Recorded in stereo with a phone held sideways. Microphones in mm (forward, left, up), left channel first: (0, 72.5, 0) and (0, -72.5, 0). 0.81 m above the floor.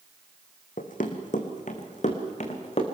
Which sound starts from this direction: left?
Running footsteps, at 0.8 s.